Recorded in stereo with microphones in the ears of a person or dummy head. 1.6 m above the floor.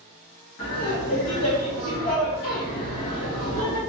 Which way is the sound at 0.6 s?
60° left (ahead or behind).